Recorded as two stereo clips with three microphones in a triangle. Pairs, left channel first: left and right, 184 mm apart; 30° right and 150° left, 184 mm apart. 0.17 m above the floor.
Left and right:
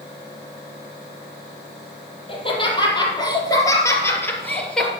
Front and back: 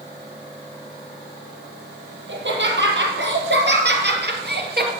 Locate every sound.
2.3 s laughter: 150° left, 5 m; by 4.9 s 175° left, 3.5 m